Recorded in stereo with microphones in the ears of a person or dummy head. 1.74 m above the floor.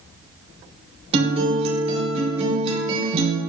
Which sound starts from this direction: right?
A guitar, at 1.1 s.